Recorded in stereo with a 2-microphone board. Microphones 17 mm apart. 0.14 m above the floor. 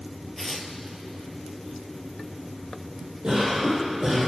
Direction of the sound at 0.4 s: 5° left (ahead or behind).